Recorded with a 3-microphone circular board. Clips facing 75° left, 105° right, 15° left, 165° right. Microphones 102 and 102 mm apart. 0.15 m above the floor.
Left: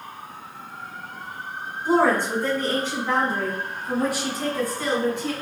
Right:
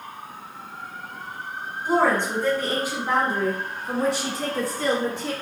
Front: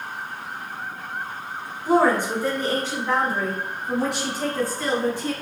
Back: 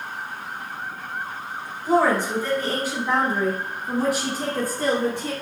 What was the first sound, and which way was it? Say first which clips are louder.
A woman speaking: left 1 dB, front 1 dB; 10° left.